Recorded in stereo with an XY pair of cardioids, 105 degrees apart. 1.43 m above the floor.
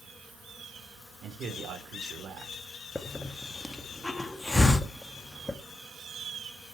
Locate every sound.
1.2 s a man speaking: 60° right, 5.5 m
3.0 s a hiss: 10° left, 2 m